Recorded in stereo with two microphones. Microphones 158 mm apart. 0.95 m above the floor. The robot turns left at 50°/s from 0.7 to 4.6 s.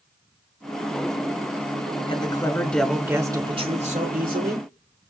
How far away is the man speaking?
About 3 m.